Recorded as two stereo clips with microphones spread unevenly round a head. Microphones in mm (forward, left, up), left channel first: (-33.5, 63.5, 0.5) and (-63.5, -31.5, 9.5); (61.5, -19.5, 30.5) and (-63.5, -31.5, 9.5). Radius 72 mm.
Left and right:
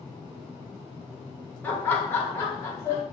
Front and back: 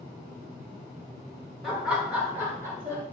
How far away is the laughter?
About 0.8 m.